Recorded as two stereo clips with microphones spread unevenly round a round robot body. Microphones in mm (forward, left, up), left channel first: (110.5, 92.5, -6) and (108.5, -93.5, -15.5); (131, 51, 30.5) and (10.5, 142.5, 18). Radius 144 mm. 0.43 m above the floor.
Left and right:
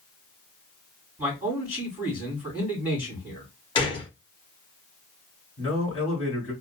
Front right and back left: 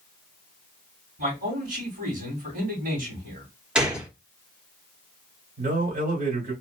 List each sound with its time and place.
1.2 s a man speaking: 175° right, 3 m
3.8 s a gunshot: 80° left, 1.1 m
5.6 s a man speaking: 165° left, 2.5 m